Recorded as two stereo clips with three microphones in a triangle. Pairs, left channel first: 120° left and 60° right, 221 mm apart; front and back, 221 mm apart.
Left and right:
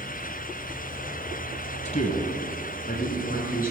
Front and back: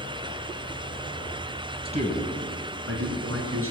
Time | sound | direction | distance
1.9 | a man speaking | 140° left | 1.4 m